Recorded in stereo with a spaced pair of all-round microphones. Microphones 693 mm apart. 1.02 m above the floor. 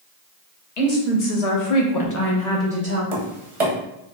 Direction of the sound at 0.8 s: 70° left (ahead or behind).